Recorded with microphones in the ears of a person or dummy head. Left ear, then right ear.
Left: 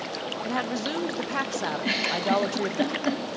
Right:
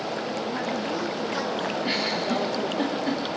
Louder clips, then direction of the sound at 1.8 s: Left 2 dB; 30° left (ahead or behind).